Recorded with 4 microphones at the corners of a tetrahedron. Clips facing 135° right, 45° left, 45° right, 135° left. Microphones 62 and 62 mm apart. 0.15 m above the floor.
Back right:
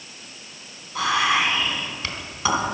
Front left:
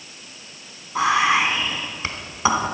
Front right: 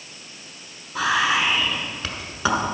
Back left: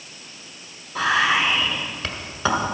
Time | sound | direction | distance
0.9 | whispering | 40° left | 1.5 m